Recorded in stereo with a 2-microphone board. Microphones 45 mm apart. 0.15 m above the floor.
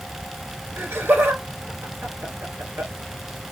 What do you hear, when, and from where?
0.8 s laughter: 55° right (ahead or behind), 3 m